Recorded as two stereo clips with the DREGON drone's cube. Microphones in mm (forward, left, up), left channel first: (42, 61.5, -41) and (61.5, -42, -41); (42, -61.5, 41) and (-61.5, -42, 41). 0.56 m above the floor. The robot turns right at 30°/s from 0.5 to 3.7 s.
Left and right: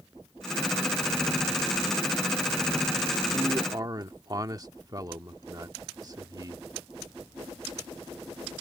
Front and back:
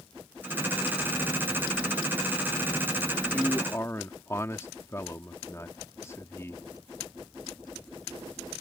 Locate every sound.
3.3 s a man speaking: 70° right; by 6.7 s 60° right